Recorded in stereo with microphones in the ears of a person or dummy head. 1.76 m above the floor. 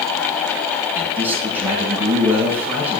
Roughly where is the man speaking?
Centre.